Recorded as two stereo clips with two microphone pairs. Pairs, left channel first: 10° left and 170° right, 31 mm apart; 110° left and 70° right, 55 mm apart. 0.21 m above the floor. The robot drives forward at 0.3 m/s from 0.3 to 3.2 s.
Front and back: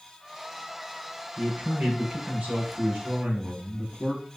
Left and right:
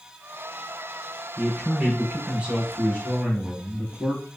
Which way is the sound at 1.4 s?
130° right.